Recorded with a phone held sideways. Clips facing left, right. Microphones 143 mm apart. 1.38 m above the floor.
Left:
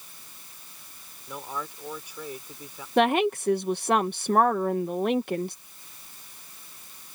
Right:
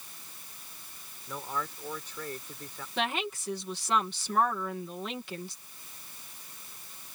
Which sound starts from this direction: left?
A woman speaking, at 3.0 s.